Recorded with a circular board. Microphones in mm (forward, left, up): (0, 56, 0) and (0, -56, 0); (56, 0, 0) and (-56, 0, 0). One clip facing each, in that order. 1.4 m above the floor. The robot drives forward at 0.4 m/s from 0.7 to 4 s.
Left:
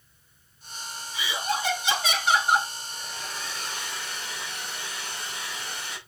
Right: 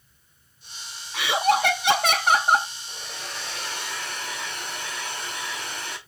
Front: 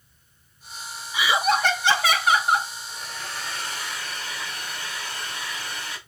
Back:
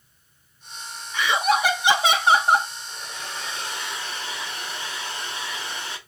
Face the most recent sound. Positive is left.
turn(degrees=-115)